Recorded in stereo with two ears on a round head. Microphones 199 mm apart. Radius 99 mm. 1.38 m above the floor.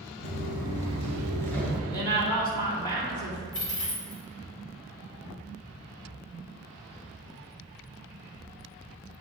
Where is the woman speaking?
20° left (ahead or behind), 2.0 m.